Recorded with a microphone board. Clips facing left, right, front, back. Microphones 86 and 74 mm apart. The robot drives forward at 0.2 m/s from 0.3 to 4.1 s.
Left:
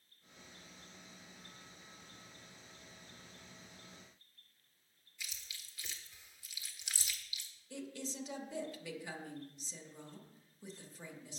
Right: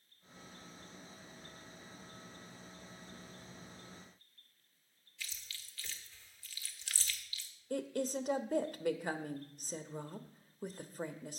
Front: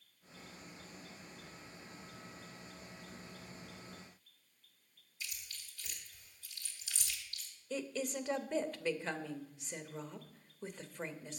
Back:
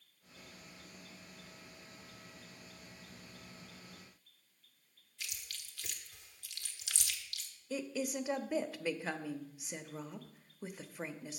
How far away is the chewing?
About 1.1 m.